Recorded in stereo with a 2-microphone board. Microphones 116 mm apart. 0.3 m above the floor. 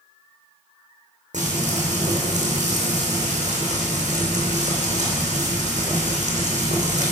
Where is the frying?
85° right, 3 m.